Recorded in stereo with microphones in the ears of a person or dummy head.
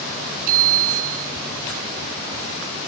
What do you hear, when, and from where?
0.5 s a bicycle bell: 45° right (ahead or behind)